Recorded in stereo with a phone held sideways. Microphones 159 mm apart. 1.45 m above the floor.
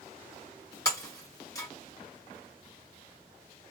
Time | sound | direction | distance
0.8 | breaking glass | 20° left (ahead or behind) | 2.5 m